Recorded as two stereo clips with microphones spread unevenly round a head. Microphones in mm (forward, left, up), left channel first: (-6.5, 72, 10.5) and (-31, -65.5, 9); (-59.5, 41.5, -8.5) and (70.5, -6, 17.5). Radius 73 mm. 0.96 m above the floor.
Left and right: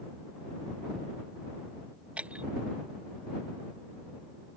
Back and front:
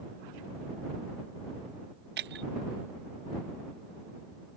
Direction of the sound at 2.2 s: 20° right.